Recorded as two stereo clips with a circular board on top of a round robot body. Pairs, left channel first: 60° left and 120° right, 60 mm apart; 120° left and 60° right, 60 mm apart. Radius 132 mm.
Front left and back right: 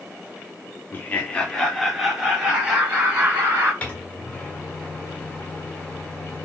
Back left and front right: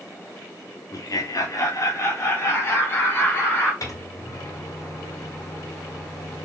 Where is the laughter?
120° left, 1.3 m; by 3.7 s 175° right, 2.0 m.